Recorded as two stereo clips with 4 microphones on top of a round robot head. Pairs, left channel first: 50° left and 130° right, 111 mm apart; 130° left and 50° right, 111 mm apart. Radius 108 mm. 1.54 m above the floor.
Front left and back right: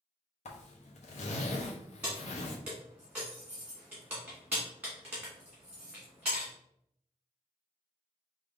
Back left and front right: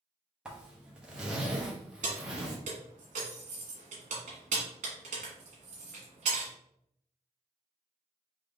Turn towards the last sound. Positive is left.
turn(degrees=-45)